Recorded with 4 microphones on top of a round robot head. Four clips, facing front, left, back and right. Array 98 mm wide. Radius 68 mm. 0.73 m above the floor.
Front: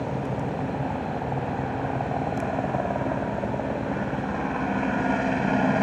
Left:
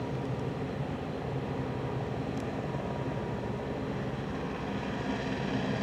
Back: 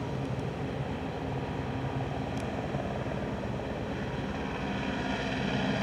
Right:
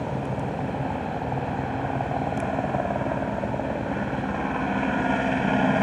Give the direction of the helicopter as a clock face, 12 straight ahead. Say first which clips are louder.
Right 6 dB, front 6 dB; 2 o'clock.